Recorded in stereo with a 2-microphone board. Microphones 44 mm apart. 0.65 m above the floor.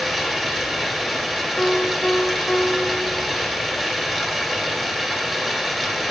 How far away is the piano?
About 1.0 m.